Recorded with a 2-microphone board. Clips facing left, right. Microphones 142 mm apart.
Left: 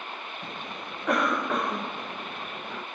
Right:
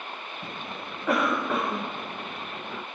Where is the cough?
Centre (ahead or behind).